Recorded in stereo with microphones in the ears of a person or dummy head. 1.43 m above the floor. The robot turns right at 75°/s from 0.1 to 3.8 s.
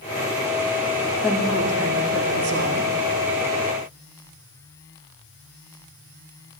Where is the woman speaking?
175° right, 1.7 m; by 3.0 s 45° right, 1.7 m.